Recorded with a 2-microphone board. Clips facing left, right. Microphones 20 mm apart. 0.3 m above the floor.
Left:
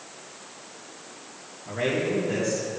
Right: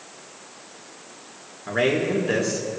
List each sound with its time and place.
1.7 s a man speaking: 70° right (ahead or behind), 4 m